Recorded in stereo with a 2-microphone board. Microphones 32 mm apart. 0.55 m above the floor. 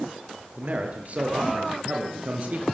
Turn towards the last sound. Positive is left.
turn(degrees=-45)  # may be behind; listen again after turning